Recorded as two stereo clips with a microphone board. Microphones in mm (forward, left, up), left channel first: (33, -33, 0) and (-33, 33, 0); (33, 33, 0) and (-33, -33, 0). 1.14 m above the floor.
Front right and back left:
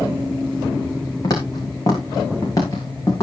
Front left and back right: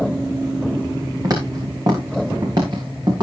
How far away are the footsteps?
About 5.5 m.